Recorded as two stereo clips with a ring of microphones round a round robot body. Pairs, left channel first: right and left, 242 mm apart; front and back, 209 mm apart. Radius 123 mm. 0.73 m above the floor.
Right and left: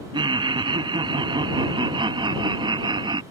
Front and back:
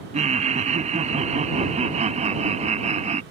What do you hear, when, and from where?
0.1 s laughter: 150° left